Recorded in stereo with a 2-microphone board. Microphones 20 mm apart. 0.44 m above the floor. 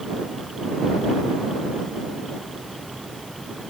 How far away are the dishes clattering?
I don't hear dishes clattering.